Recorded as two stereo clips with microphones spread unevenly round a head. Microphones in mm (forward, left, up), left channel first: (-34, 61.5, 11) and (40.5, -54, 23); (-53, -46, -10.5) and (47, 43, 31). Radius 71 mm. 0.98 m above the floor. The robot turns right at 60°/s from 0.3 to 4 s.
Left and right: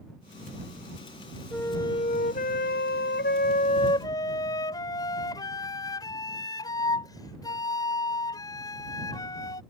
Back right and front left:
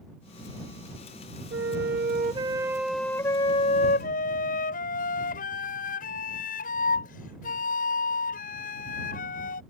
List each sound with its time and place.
1.5 s a flute: 40° left; by 9.6 s 170° right